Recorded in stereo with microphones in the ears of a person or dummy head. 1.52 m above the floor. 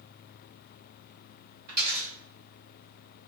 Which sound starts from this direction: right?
A dropped coin, at 1.7 s.